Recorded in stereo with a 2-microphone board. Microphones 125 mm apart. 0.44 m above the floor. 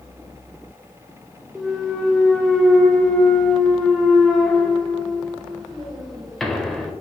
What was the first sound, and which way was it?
A clunk, centre (ahead or behind).